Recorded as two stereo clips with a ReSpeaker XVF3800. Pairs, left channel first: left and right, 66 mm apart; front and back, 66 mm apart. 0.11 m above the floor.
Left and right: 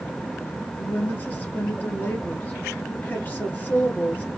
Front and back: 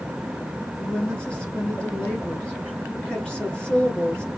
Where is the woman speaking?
60° left, 1.4 m.